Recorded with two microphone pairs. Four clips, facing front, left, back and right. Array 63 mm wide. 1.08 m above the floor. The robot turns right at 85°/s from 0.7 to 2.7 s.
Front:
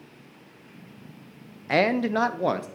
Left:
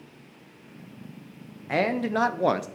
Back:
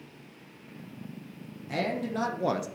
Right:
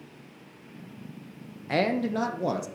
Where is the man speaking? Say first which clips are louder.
Left 1 dB, front 9 dB; 5° left, 0.6 m; by 2.7 s 85° left, 0.6 m.